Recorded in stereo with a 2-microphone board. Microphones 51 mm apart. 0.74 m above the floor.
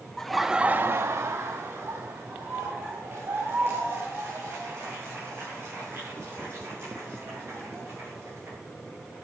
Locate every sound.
0.2 s laughter: 5° left (ahead or behind), 1.0 m; by 8.5 s 50° right (ahead or behind), 10.5 m